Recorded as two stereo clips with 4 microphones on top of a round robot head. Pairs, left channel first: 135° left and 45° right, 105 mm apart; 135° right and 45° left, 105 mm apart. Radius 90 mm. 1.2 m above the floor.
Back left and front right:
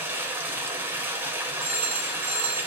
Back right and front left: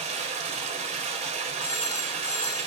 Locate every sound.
0.0 s running water: 25° left, 3.5 m
1.6 s a phone ringing: 60° right, 7.5 m